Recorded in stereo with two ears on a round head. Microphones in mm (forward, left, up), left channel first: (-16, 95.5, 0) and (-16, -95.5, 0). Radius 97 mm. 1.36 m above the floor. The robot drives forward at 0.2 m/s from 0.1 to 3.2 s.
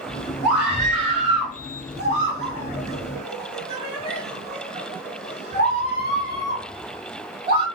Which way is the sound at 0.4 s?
60° right (ahead or behind).